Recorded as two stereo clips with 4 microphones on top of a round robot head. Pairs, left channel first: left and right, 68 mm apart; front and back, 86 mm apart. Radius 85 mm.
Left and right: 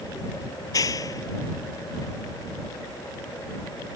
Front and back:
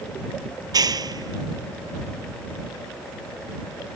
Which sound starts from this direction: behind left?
A clap, at 0.6 s.